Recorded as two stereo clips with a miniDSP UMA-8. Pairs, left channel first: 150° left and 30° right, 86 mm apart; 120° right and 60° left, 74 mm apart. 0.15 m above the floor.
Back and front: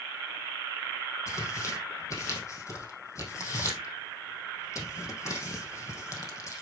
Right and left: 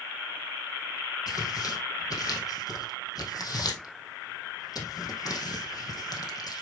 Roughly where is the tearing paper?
Behind right.